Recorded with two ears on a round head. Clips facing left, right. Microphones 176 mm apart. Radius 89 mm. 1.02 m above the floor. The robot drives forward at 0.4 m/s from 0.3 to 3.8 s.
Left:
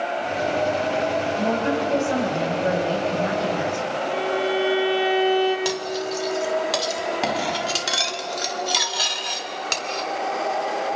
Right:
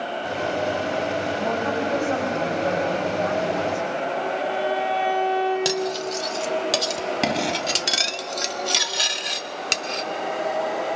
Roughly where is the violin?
Left.